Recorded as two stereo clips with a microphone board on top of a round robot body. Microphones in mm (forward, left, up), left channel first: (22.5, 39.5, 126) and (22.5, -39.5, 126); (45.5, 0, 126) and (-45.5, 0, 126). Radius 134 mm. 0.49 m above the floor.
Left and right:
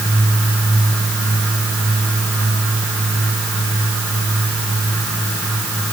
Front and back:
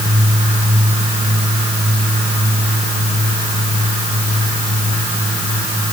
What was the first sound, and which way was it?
Only background noise.